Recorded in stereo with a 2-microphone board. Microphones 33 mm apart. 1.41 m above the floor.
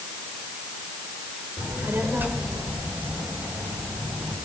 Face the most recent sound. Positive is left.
turn(degrees=-75)  # may be behind; listen again after turning